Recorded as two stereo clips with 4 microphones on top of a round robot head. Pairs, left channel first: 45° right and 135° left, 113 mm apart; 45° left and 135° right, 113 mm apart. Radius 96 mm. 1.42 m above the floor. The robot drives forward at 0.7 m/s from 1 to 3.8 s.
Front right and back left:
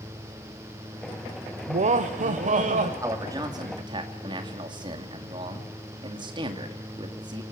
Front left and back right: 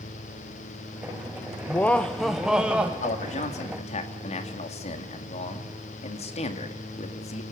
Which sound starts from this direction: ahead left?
A man speaking, at 3.0 s.